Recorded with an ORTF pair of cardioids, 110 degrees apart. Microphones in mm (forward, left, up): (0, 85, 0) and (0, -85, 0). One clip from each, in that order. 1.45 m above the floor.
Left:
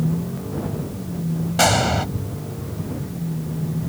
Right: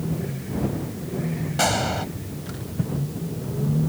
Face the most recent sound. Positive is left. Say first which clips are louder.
# left 5 dB
turn(degrees=30)